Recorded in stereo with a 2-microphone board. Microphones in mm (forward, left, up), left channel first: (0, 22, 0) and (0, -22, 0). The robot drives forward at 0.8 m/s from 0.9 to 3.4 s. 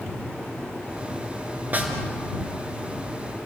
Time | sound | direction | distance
1.7 | a snare drum | 40° right (ahead or behind) | 3.5 m